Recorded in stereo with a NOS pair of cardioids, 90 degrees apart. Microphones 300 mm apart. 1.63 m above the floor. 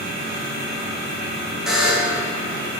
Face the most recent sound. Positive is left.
turn(degrees=0)